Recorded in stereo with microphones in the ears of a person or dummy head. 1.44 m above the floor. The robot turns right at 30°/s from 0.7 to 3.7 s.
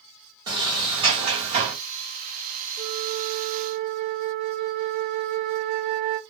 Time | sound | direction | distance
0.5 | a sliding door | 150° right | 0.8 m
2.8 | a flute | 35° right (ahead or behind) | 1.1 m